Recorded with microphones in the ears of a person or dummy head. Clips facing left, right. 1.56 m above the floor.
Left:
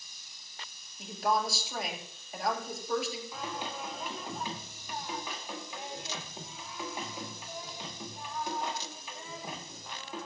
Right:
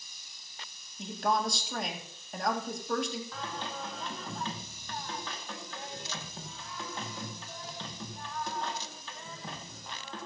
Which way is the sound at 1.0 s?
5° left (ahead or behind).